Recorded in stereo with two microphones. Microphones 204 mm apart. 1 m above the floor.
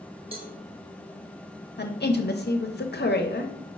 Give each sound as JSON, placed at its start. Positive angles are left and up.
{"t": 0.3, "sound": "a cowbell", "side_deg": -30, "distance_m": 0.8}
{"t": 1.8, "sound": "a woman speaking", "side_deg": 55, "distance_m": 0.5}